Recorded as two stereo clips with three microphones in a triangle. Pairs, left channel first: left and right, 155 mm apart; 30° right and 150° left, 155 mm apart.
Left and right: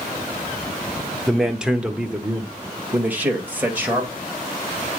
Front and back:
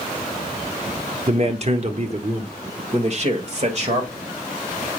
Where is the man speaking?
175° right, 0.9 m; by 4.2 s 165° right, 2.5 m.